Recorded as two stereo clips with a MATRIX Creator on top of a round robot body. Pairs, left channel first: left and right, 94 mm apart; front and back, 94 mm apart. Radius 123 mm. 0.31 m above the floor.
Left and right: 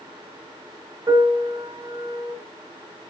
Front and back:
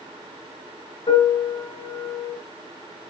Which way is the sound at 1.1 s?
35° right.